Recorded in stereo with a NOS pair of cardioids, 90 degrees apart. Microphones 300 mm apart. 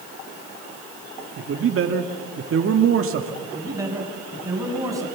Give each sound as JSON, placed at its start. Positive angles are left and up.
{"t": 1.4, "sound": "a man speaking", "azimuth_deg": -45, "distance_m": 1.8}
{"t": 3.4, "sound": "a man speaking", "azimuth_deg": -10, "distance_m": 7.0}